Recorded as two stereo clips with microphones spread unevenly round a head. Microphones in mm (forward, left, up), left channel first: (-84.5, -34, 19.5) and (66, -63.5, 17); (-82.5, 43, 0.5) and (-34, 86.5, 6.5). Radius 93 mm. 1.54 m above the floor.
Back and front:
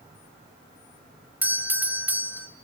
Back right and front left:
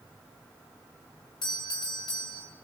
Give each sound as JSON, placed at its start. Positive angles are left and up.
{"t": 1.4, "sound": "a doorbell", "azimuth_deg": -90, "distance_m": 3.0}